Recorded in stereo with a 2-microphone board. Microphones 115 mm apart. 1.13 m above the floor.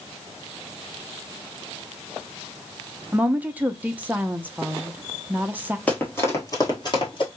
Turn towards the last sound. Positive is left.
turn(degrees=45)  # may be behind; listen again after turning